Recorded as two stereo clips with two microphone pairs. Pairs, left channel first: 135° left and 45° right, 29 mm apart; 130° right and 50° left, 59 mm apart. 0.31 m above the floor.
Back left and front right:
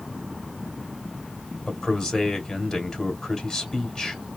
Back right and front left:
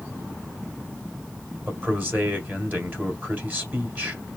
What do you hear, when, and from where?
1.7 s a man speaking: 80° left, 1.9 m